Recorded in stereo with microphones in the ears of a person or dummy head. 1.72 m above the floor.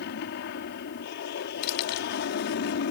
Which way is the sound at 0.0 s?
55° left (ahead or behind).